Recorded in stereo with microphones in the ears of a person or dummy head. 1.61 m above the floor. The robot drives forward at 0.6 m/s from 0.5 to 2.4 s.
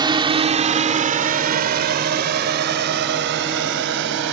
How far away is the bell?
No bell in this recording.